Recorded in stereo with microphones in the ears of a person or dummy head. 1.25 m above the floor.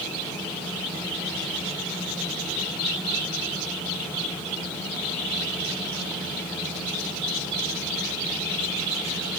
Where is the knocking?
No knocking in this recording.